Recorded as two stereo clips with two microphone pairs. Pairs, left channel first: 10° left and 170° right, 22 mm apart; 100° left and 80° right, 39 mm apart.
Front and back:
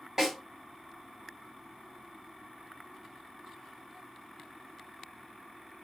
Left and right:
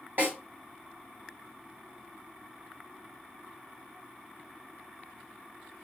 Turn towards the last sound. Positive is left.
turn(degrees=-105)